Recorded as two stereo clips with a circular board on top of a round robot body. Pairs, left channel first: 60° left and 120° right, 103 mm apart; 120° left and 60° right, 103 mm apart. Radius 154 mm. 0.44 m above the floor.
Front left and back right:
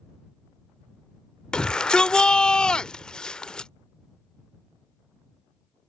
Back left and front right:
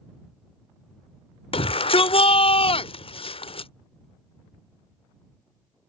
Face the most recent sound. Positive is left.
turn(degrees=140)